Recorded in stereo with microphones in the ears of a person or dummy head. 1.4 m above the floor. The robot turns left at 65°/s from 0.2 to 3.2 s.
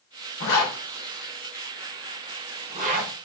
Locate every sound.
0.4 s a zipper: 55° left (ahead or behind), 1.1 m; by 3.1 s 50° right (ahead or behind), 1.1 m